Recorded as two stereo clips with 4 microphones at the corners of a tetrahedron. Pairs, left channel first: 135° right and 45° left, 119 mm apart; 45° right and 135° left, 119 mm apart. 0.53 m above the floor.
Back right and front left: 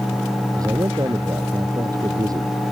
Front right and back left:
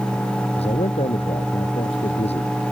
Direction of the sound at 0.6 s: 15° right.